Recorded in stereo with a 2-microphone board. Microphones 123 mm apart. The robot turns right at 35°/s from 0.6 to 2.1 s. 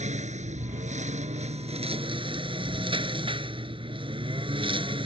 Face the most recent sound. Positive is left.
turn(degrees=-45)